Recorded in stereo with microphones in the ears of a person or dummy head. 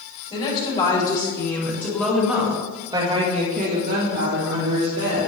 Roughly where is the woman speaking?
Left.